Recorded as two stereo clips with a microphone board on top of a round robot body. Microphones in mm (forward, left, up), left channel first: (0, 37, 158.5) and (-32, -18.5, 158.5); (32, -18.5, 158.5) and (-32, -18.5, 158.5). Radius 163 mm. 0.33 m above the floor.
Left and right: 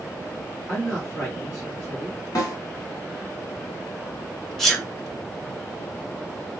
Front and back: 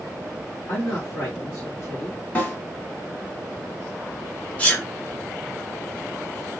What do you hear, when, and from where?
0.7 s a man speaking: 15° right, 1.7 m
2.4 s a snare drum: 55° left, 1.9 m
4.6 s a sneeze: 20° right, 1.3 m